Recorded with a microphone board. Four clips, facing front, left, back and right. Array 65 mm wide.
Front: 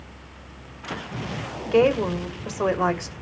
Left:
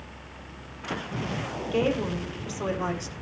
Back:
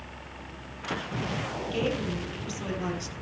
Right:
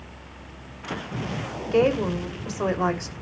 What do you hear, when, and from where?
1.7 s a woman speaking: 25° right, 2.5 m